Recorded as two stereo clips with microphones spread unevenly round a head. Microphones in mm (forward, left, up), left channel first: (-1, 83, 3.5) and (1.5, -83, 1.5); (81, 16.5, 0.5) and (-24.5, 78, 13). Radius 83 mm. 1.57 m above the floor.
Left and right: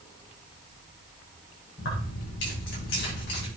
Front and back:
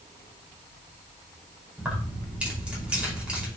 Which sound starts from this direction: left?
Keys jangling, at 1.8 s.